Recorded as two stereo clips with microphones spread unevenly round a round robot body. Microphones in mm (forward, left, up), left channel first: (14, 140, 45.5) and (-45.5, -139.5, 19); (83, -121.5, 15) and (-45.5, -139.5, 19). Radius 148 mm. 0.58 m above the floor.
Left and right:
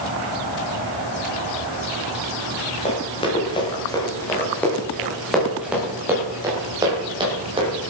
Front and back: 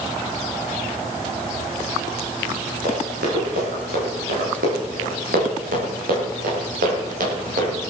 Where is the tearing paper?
I don't hear tearing paper.